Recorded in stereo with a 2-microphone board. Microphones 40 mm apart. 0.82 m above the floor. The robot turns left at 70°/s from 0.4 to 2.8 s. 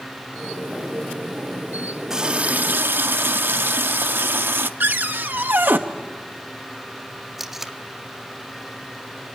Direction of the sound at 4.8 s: 55° right (ahead or behind).